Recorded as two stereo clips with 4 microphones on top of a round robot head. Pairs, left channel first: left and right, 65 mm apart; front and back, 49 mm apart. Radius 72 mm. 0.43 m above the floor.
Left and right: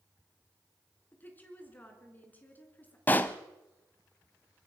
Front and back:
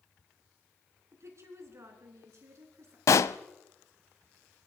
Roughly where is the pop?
Ahead.